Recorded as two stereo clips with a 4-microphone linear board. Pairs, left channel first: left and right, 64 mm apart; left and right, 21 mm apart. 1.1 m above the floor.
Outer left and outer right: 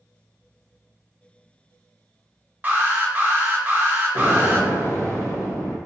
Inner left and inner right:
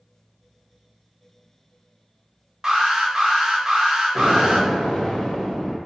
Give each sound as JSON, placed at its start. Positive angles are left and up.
{"t": 2.6, "sound": "an alarm", "side_deg": -25, "distance_m": 0.6}
{"t": 4.2, "sound": "an explosion", "side_deg": 45, "distance_m": 0.8}